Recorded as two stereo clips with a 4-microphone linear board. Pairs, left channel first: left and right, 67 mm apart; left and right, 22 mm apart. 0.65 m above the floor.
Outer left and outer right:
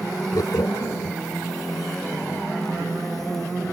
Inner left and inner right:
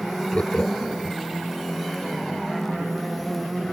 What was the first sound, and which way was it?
Laughter, 70° left (ahead or behind).